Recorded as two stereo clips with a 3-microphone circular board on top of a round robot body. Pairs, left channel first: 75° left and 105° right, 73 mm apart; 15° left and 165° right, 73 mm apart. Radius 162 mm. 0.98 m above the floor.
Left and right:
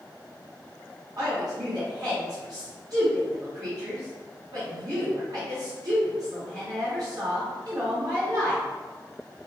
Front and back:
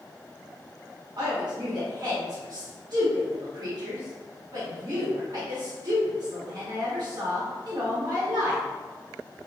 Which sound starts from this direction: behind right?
A woman speaking, at 1.2 s.